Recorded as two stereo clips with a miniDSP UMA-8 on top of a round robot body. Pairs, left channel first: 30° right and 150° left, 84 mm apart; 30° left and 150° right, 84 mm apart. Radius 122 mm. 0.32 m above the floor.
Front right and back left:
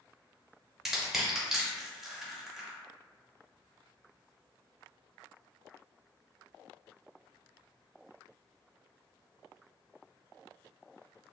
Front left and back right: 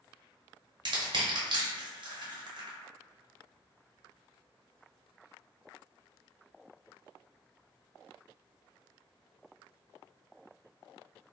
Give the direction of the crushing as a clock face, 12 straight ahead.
4 o'clock.